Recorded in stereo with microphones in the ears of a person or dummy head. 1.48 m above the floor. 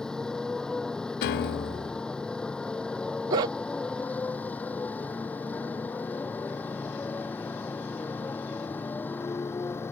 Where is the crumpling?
No crumpling in this recording.